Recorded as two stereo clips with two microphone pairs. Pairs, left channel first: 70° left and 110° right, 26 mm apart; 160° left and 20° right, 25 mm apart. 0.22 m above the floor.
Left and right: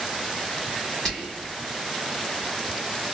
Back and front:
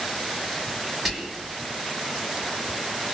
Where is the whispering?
70° left, 1.5 m.